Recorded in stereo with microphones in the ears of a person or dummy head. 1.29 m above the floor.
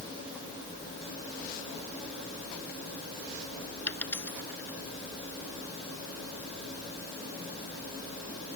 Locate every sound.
3.9 s a dropped coin: 5° left (ahead or behind)